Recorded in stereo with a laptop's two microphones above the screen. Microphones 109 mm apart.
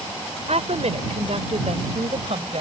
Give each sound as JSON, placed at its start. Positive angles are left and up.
{"t": 0.5, "sound": "a woman speaking", "side_deg": -80}